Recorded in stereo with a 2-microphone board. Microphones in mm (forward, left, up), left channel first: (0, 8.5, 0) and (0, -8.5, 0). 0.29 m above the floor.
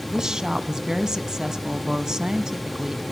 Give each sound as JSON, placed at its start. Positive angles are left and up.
{"t": 0.1, "sound": "a woman speaking", "side_deg": -35, "distance_m": 1.9}